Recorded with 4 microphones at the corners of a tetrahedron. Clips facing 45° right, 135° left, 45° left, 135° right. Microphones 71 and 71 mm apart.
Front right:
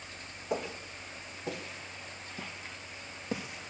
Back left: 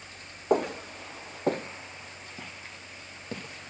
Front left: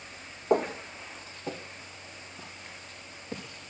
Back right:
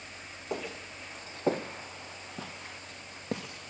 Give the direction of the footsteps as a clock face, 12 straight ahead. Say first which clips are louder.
Back left 9 dB, front left 11 dB; 9 o'clock.